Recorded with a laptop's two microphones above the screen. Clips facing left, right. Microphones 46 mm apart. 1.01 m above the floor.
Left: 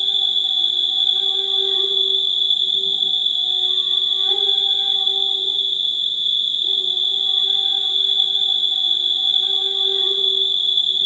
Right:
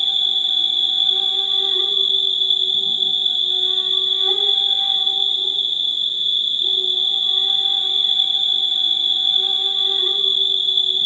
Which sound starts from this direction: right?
An insect, at 0.0 s.